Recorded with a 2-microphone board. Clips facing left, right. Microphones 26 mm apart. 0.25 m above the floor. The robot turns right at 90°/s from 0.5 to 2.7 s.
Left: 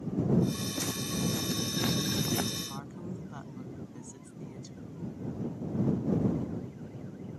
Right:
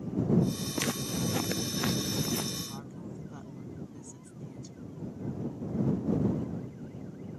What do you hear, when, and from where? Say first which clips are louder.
0.8 s footsteps: right 1 dB; 60° right (ahead or behind); by 2.5 s 45° left (ahead or behind)
2.7 s a woman speaking: left 2 dB; 20° left (ahead or behind); by 5.0 s 25° left (ahead or behind)